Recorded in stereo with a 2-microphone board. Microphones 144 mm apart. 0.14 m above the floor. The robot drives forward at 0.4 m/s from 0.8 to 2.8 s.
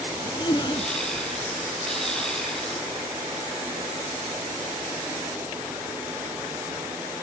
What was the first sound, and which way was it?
A zipper, 35° left (ahead or behind).